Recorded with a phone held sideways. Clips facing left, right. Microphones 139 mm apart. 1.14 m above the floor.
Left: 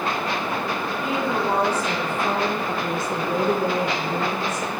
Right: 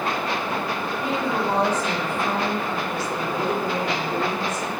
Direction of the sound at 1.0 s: Centre (ahead or behind).